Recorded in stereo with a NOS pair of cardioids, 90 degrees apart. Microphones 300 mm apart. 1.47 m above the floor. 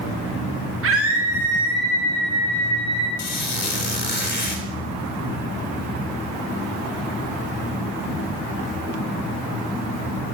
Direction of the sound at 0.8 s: 50° right.